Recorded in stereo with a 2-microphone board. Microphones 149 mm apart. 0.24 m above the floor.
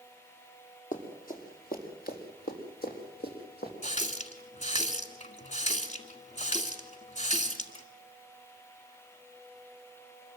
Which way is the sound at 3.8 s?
50° left (ahead or behind).